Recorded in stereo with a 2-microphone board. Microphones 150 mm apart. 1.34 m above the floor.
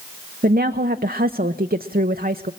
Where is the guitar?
No guitar in this recording.